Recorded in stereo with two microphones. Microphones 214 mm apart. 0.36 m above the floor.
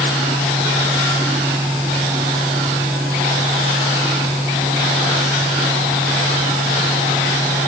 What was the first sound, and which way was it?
Only background noise.